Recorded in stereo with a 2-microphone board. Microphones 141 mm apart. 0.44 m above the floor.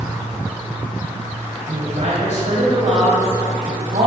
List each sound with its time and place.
1.7 s a woman speaking: 55° right (ahead or behind), 2.5 m